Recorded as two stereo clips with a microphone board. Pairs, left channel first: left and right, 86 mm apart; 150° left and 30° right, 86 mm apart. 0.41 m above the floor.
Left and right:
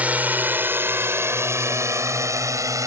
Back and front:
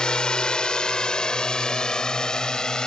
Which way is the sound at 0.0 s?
140° right.